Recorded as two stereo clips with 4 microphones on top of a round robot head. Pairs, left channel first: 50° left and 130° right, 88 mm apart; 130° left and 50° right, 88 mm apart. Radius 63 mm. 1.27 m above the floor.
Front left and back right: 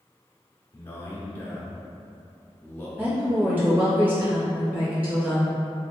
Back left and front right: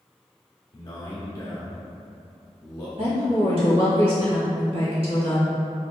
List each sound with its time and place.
0.7 s a man speaking: 110° left, 0.6 m
3.0 s a woman speaking: 55° right, 1.3 m